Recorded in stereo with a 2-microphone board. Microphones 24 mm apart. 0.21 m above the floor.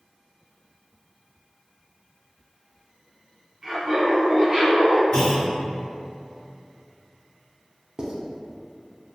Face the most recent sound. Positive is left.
turn(degrees=-35)  # may be behind; listen again after turning